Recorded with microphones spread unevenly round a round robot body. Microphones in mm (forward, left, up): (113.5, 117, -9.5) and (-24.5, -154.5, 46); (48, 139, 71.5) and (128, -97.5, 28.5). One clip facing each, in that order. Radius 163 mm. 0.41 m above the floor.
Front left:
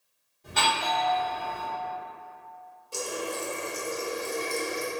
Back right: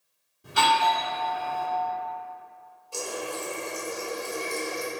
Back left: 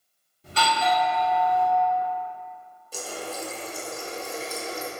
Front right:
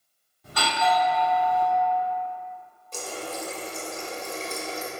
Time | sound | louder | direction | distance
0.4 | a doorbell | back right 4 dB, even | 160° left | 1.5 m
2.9 | a running tap | even, even | 15° left | 0.7 m